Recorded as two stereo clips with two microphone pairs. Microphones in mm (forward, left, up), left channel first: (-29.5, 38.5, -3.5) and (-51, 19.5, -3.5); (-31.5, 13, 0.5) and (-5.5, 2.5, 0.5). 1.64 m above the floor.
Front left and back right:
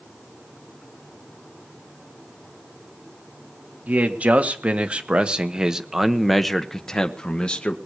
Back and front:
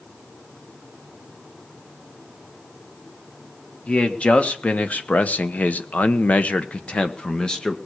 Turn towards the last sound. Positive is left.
turn(degrees=95)